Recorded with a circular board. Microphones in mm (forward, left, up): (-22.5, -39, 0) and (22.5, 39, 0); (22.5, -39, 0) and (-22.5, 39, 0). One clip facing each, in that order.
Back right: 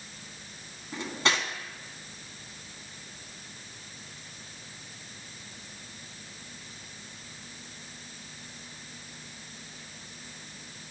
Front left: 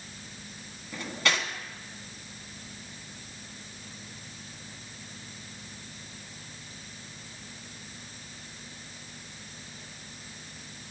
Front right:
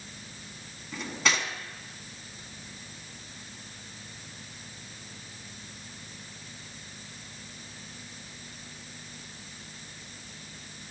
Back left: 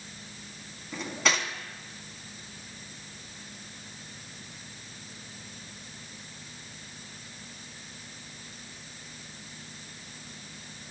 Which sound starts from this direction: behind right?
Cutlery clinking, at 0.9 s.